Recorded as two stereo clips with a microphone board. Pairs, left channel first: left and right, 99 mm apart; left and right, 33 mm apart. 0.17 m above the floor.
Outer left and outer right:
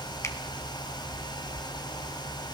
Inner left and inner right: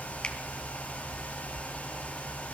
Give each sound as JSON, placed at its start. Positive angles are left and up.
{"t": 0.2, "sound": "a finger snap", "side_deg": 30, "distance_m": 1.6}